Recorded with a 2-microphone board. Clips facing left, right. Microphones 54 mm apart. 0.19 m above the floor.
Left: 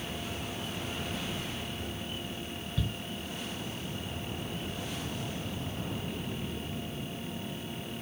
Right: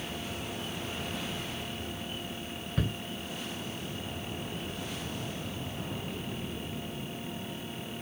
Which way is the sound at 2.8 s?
55° right (ahead or behind).